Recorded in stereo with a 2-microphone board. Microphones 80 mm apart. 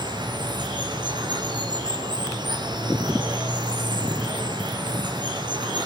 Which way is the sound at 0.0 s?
70° right (ahead or behind).